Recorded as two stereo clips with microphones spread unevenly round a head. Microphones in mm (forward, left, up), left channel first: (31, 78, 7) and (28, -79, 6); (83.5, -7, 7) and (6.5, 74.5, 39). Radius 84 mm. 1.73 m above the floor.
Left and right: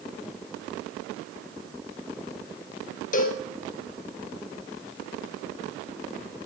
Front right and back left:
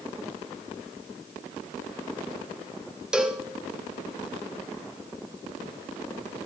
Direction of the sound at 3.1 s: 60° left.